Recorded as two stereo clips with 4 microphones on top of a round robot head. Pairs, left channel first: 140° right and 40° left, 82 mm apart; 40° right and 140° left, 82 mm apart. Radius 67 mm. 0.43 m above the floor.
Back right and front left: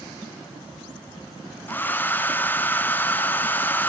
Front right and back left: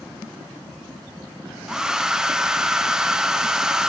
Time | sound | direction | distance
1.7 | a hair dryer | 150° right | 0.8 m